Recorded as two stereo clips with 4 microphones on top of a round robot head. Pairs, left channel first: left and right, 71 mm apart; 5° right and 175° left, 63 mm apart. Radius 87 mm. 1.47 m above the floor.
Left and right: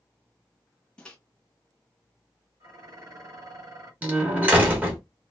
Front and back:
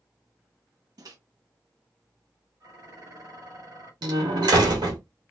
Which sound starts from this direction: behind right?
Dishes clattering, at 2.6 s.